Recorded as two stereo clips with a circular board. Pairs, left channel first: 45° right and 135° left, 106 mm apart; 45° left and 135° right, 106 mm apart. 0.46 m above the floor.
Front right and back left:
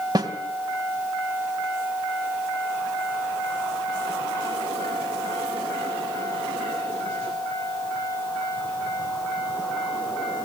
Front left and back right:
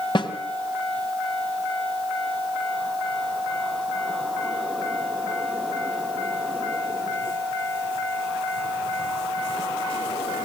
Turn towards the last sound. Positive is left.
turn(degrees=85)